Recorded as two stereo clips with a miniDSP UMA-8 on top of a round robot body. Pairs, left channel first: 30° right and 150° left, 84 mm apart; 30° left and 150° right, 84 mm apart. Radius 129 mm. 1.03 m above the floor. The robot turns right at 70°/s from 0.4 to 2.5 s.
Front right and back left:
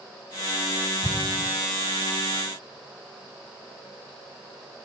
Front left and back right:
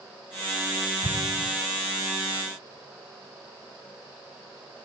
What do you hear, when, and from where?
1.0 s an explosion: 125° right, 2 m; by 1.5 s 95° right, 2 m